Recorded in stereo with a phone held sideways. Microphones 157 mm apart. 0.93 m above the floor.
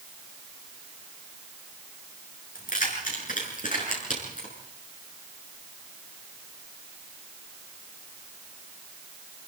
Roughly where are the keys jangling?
Left.